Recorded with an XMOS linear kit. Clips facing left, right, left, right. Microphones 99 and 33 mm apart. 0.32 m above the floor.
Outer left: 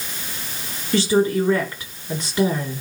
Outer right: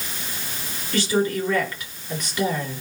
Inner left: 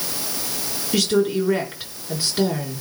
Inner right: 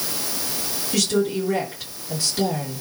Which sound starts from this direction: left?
A woman speaking, at 0.9 s.